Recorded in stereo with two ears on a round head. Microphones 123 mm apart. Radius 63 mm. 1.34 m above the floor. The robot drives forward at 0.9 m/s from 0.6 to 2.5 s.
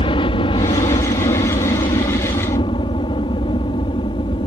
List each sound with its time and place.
0.0 s a helicopter: 40° left (ahead or behind); by 4.5 s 35° left (ahead or behind)